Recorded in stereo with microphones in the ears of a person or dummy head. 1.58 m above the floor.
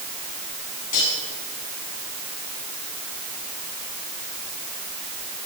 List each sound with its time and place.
0.9 s cutlery clinking: 40° left (ahead or behind), 9.5 m